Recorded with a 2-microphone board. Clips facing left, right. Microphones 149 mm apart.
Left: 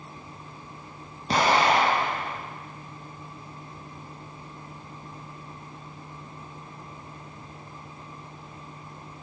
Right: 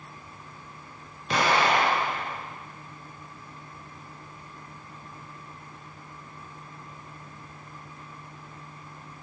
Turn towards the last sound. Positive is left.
turn(degrees=35)  # may be behind; listen again after turning